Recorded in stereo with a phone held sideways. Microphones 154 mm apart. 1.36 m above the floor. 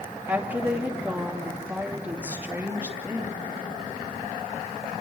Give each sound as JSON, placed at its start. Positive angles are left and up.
{"t": 0.3, "sound": "a woman speaking", "side_deg": -10, "distance_m": 3.0}